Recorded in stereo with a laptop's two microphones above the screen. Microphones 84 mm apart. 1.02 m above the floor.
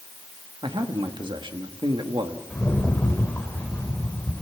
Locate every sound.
0.6 s a man speaking: 70° right (ahead or behind), 1.8 m
2.5 s a rattle: 15° left (ahead or behind), 3 m